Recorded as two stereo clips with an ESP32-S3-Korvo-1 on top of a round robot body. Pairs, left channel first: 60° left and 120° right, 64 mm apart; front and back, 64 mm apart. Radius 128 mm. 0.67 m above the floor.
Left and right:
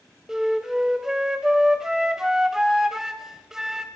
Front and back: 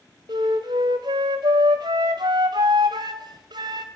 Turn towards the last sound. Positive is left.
turn(degrees=155)